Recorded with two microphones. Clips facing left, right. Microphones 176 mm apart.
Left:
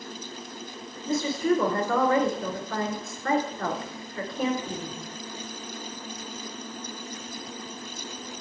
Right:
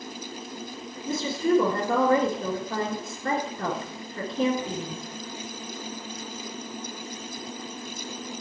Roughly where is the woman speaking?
Right.